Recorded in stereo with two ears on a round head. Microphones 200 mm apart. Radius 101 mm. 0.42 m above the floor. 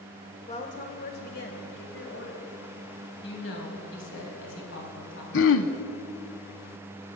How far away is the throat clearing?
About 0.7 m.